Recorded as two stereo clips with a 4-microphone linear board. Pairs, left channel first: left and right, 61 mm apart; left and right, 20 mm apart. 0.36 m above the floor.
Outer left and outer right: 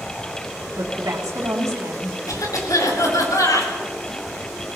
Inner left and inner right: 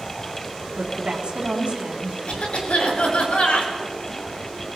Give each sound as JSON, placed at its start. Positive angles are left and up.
{"t": 0.7, "sound": "a woman speaking", "side_deg": -65, "distance_m": 3.0}
{"t": 2.3, "sound": "a cough", "side_deg": 70, "distance_m": 4.5}